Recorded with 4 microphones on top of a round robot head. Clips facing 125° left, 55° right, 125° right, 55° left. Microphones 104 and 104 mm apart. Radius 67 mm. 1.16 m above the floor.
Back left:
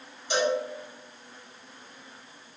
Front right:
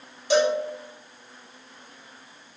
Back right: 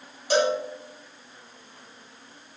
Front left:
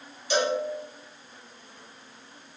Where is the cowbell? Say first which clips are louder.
Front right 5 dB, back right 3 dB; 70° right, 1.1 m.